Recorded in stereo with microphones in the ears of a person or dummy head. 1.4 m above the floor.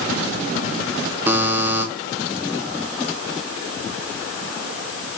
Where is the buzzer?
10° right (ahead or behind), 1.1 m.